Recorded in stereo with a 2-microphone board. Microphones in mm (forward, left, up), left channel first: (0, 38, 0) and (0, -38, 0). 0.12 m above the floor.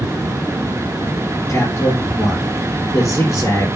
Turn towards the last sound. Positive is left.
turn(degrees=45)  # may be behind; listen again after turning